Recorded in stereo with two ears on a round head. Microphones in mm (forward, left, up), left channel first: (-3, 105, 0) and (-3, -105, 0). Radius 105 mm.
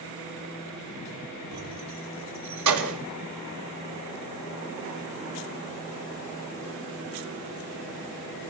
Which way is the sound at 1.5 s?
75° right (ahead or behind).